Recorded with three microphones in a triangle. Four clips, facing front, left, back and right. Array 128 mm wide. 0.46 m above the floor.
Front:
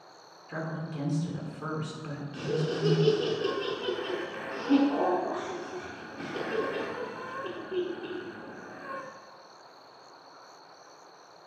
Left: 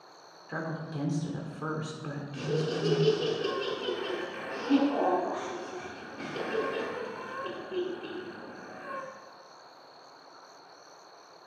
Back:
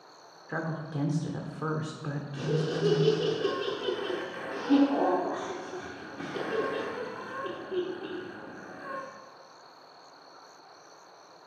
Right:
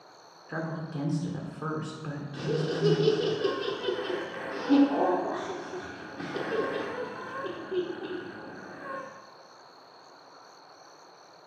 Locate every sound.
0.5 s a woman speaking: 170° right, 1.3 m
2.3 s laughter: 105° right, 0.9 m